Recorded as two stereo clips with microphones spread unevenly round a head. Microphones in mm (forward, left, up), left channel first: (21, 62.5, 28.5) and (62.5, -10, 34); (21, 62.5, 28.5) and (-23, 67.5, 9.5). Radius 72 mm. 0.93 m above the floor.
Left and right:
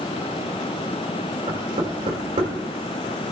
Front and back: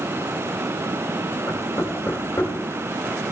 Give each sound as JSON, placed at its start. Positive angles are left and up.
{"t": 1.5, "sound": "knocking", "azimuth_deg": -65, "distance_m": 3.5}